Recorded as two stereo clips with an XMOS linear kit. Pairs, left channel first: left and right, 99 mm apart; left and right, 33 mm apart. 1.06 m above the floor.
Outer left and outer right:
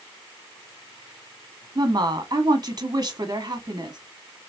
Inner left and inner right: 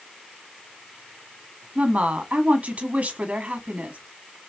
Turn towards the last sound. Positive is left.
turn(degrees=-40)  # may be behind; listen again after turning